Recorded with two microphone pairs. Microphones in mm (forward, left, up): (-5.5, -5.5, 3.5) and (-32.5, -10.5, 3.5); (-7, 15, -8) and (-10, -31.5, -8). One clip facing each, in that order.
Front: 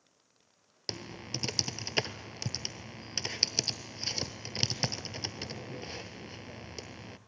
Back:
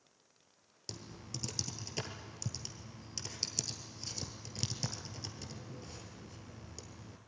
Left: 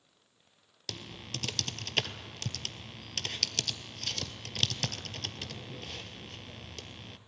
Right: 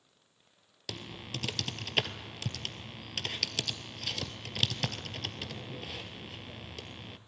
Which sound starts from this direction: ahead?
Typing on a keyboard, at 0.9 s.